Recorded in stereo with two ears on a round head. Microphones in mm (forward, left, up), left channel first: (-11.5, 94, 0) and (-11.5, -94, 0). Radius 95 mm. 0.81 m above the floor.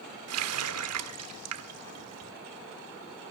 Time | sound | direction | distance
0.3 | a running tap | 75° right (ahead or behind) | 1.4 m